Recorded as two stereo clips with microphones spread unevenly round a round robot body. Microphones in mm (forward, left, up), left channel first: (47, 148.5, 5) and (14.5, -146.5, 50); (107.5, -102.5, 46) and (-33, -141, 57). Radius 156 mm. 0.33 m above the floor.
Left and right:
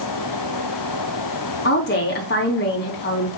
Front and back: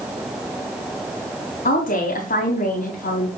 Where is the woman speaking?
40° left, 3 m.